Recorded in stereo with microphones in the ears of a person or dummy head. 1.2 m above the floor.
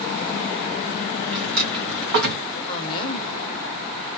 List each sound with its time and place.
1.3 s a drawer: 50° right (ahead or behind), 0.9 m
2.7 s a woman speaking: 25° left (ahead or behind), 0.7 m